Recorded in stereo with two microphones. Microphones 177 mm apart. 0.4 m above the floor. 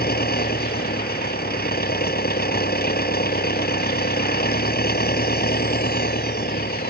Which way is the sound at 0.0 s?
60° left (ahead or behind).